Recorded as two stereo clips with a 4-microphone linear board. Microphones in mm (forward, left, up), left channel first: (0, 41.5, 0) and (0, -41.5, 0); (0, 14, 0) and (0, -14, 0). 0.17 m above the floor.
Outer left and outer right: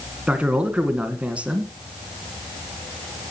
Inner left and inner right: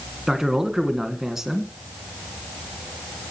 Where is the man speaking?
15° right (ahead or behind), 1.8 m.